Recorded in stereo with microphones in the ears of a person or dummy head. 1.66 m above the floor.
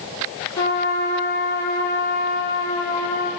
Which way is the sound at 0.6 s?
20° left (ahead or behind).